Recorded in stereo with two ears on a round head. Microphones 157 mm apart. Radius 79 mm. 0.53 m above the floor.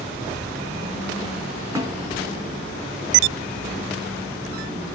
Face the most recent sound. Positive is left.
turn(degrees=-15)  # may be behind; listen again after turning